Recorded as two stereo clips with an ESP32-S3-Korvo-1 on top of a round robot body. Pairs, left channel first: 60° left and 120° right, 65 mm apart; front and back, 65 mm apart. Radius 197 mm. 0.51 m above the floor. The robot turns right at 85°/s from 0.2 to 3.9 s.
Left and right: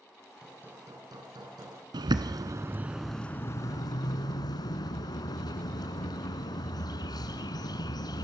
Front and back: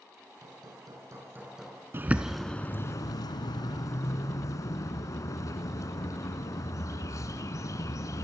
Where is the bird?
125° right, 1.2 m; by 8.2 s 40° left, 1.2 m.